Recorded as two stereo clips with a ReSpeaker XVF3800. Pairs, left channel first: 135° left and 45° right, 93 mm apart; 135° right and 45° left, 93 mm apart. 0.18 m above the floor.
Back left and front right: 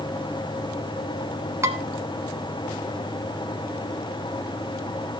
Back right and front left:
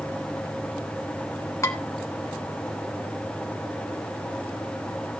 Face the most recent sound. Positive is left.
turn(degrees=-90)